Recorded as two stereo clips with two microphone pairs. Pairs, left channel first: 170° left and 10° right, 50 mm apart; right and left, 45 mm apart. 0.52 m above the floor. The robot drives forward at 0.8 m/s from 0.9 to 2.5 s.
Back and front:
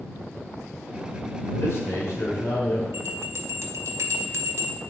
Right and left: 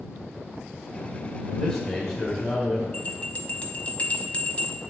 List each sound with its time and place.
1.5 s a man speaking: 165° right, 1.8 m; by 2.8 s 170° right, 2.5 m
2.9 s a bell: 30° right, 0.9 m